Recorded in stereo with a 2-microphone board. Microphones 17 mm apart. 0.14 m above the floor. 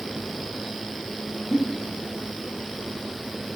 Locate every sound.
1.5 s a giggle: 70° left (ahead or behind), 1.2 m